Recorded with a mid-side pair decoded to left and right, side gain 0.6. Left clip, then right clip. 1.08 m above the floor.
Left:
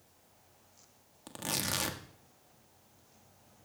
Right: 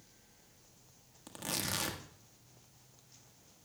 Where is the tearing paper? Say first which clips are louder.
Left 3 dB; 15° left, 1.5 m.